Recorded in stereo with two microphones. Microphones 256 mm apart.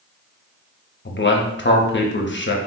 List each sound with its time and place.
1.1 s a man speaking: 45° left (ahead or behind), 0.6 m